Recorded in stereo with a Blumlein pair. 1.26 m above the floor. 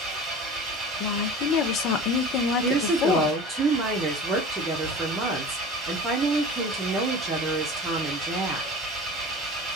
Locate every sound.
0.0 s an engine running: 15° right, 2.5 m
1.0 s a woman speaking: 35° left, 0.8 m
2.6 s a woman speaking: 15° right, 1.4 m